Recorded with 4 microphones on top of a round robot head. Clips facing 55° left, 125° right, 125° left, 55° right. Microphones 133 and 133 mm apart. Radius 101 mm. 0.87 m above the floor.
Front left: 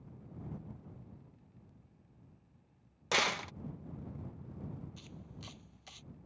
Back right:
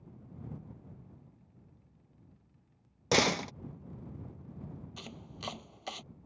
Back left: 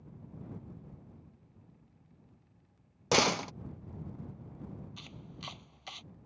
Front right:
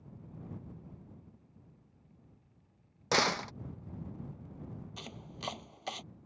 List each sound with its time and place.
3.1 s a door slam: 165° right
5.0 s chopping: 100° right